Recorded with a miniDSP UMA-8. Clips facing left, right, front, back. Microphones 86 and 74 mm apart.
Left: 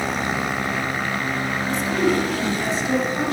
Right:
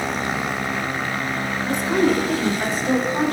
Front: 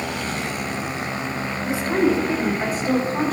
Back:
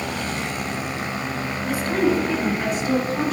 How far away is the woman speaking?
About 1.9 m.